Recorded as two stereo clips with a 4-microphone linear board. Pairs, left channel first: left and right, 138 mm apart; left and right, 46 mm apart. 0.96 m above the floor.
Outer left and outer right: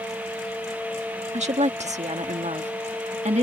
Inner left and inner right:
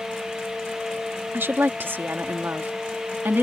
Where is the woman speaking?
55° right (ahead or behind).